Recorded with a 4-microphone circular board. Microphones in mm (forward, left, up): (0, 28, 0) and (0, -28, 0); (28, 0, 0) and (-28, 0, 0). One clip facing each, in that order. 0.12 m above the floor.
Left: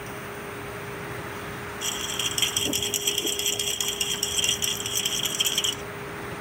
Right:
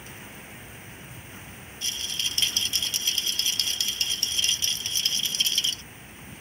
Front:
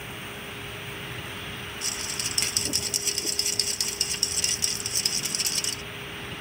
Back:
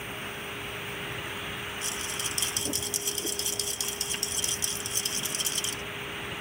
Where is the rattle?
15° left.